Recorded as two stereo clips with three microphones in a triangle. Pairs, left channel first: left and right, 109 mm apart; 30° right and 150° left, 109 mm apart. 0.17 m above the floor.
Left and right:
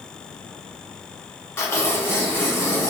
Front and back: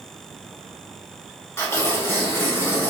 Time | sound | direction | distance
1.6 | tearing paper | 30° left | 1.0 m